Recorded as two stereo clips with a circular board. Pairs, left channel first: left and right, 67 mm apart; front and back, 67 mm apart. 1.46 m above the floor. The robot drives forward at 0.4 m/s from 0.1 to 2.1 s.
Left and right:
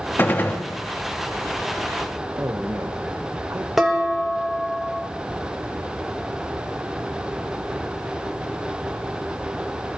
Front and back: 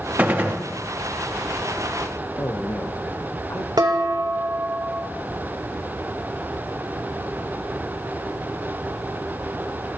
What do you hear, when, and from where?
0.2 s a gunshot: 125° left, 1.0 m; by 0.6 s 135° left, 1.1 m
2.4 s a man speaking: 40° right, 1.3 m
3.8 s dishes clattering: 175° right, 1.4 m